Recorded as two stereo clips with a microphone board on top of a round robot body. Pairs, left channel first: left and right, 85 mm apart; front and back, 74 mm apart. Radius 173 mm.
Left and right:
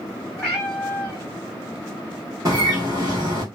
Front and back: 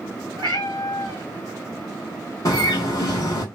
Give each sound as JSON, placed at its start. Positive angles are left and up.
{"t": 0.4, "sound": "a cat meowing", "azimuth_deg": 170, "distance_m": 0.7}
{"t": 2.5, "sound": "a bird", "azimuth_deg": -40, "distance_m": 0.7}